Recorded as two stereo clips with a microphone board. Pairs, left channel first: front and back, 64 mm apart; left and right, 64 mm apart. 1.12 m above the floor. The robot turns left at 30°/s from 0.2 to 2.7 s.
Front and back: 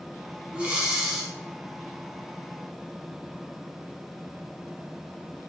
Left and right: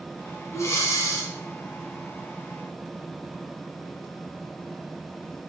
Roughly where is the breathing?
Left.